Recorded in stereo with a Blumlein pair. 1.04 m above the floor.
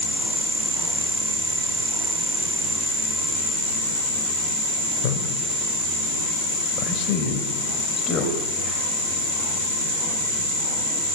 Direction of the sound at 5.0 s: 45° left.